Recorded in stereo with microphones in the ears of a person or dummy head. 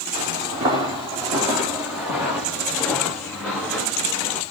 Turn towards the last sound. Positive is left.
turn(degrees=10)  # may be behind; listen again after turning